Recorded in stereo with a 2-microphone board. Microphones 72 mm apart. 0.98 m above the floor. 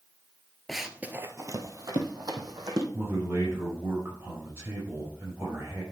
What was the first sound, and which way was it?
Running footsteps, 5° left (ahead or behind).